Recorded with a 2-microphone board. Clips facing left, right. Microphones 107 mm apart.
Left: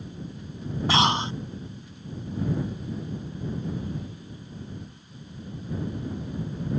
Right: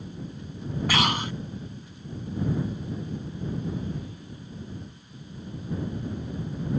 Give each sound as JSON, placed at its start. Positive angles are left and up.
{"t": 0.9, "sound": "breathing", "side_deg": 25}